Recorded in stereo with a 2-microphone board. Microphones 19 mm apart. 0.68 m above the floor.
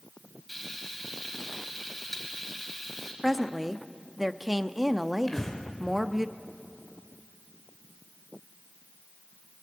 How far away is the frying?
About 4 m.